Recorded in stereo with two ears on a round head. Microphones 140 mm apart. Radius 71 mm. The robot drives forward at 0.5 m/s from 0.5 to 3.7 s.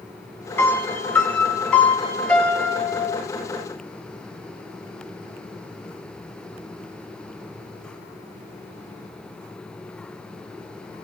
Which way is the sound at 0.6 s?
15° left (ahead or behind).